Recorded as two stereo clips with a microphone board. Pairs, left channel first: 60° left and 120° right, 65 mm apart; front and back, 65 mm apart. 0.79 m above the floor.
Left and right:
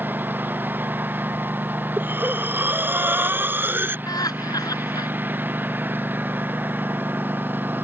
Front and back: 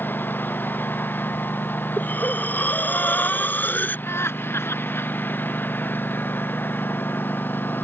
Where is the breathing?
60° right.